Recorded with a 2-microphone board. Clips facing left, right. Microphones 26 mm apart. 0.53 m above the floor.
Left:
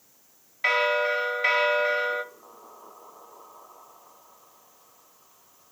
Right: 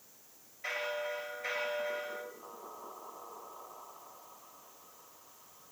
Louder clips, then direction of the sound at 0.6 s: Left 14 dB; 70° left (ahead or behind).